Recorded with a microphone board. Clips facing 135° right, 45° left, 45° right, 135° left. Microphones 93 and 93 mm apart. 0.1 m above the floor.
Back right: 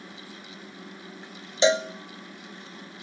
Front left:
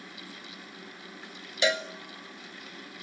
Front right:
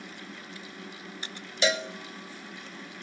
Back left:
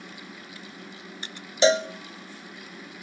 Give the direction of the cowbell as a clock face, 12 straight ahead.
6 o'clock.